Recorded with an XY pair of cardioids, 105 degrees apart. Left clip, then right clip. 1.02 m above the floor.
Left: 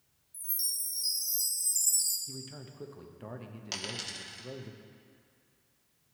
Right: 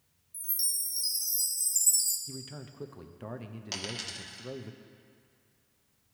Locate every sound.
0.3 s a chime: 30° right, 2.0 m
2.3 s a man speaking: 20° right, 0.5 m
3.7 s a dropped coin: straight ahead, 0.9 m